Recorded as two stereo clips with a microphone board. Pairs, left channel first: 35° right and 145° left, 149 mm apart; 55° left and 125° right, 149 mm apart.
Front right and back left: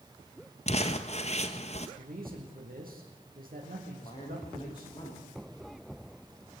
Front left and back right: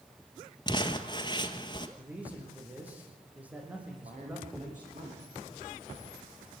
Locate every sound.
0.7 s crumpling: straight ahead, 1.4 m
2.0 s a man speaking: 155° left, 5 m
3.9 s a man speaking: 95° right, 9.5 m